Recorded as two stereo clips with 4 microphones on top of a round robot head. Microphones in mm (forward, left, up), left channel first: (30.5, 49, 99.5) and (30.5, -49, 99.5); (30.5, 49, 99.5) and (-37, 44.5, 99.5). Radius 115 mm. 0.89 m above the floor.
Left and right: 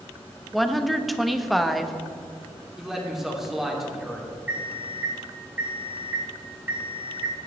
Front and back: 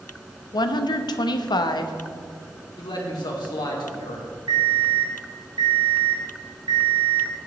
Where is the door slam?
No door slam in this recording.